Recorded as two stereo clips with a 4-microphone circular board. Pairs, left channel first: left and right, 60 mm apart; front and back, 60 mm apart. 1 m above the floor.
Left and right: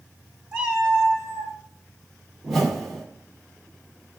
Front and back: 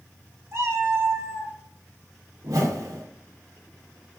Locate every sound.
0.5 s a cat meowing: 165° right, 1.2 m; by 1.6 s 130° right, 1.2 m
2.4 s a whoosh: 175° left, 1.0 m